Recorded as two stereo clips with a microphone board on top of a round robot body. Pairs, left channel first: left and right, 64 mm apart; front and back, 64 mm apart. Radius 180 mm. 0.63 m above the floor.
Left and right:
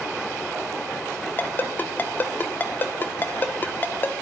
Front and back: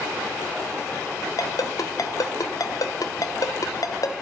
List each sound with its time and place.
1.4 s a ringtone: 30° left, 1.4 m